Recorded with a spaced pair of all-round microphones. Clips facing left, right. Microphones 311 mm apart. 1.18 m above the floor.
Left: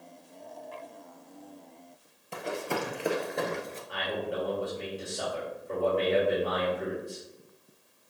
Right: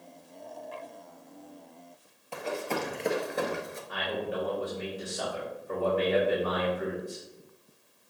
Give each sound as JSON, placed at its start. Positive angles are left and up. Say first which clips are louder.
{"t": 2.3, "sound": "running footsteps", "louder": "even", "side_deg": 20, "distance_m": 1.7}
{"t": 3.9, "sound": "a man speaking", "louder": "even", "side_deg": -5, "distance_m": 3.0}